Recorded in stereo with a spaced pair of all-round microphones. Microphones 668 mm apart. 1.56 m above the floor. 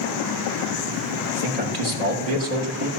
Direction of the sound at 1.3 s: 70° right (ahead or behind).